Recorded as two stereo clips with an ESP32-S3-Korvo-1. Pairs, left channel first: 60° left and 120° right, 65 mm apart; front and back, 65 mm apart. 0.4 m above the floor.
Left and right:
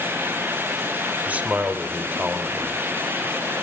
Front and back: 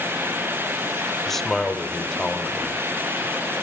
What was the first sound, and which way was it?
A man speaking, 80° right.